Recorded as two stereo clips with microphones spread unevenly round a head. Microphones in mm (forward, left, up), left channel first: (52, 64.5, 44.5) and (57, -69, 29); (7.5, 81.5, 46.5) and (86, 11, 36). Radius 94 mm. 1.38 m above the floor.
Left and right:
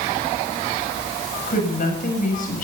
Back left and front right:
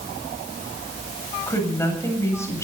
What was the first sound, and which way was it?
A woman speaking, 75° left.